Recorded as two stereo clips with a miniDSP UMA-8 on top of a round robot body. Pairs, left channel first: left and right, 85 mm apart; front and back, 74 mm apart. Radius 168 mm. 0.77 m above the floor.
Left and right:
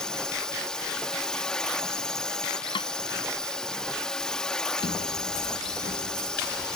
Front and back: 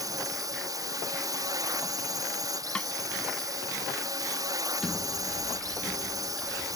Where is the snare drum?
75° left.